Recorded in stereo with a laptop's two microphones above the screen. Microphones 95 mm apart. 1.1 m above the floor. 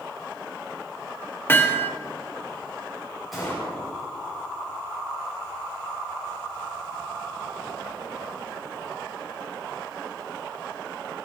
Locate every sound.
1.5 s hammering: 25° left (ahead or behind), 0.9 m
3.3 s a gunshot: centre (ahead or behind), 4 m